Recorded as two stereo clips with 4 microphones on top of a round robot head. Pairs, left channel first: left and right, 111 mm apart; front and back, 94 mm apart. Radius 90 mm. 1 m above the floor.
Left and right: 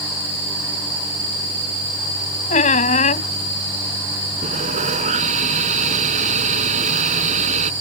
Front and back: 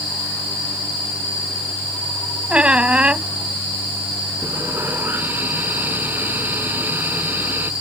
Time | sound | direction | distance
2.5 | a squeak | 100° left | ?
4.4 | sawing | 105° right | ?